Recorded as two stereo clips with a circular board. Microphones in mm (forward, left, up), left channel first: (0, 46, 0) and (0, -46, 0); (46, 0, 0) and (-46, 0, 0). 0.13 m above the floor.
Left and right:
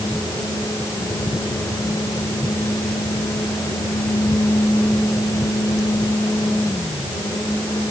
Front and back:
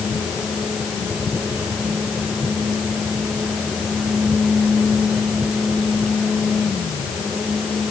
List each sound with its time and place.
Only background noise.